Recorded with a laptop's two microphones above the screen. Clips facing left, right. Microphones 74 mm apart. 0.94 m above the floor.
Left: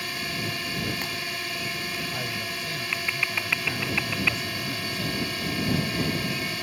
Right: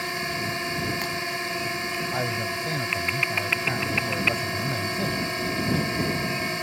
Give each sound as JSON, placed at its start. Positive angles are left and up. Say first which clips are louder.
{"t": 0.0, "sound": "a drone", "louder": "right 3 dB", "side_deg": -25}
{"t": 2.1, "sound": "a man speaking", "louder": "right 5 dB", "side_deg": -35}